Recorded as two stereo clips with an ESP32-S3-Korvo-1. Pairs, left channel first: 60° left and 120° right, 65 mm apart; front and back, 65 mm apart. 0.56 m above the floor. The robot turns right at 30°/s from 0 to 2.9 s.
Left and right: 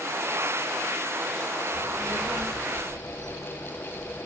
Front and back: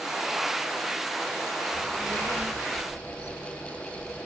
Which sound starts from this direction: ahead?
A child speaking, at 1.7 s.